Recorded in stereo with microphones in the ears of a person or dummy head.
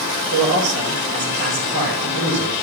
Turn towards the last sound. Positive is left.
turn(degrees=-65)  # may be behind; listen again after turning